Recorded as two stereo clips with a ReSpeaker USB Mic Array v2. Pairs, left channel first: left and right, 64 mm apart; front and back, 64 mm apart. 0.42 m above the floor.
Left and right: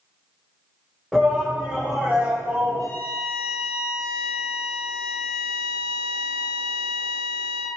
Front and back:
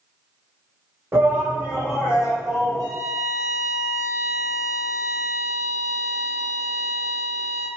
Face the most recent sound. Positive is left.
turn(degrees=140)